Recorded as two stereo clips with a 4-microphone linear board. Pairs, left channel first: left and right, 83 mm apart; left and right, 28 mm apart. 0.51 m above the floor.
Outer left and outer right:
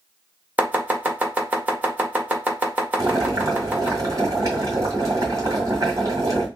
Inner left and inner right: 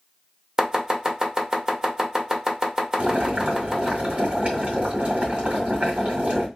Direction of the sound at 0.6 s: 20° right (ahead or behind).